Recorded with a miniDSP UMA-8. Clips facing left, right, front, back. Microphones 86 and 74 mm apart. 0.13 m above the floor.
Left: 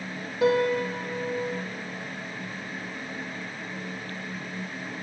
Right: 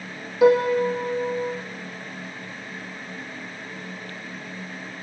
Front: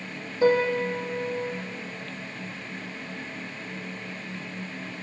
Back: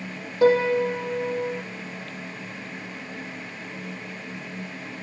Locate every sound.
0.4 s a piano: 170° right, 6.5 m